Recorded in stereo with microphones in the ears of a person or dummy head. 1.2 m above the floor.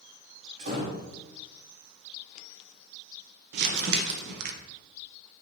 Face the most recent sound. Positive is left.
turn(degrees=-55)  # may be behind; listen again after turning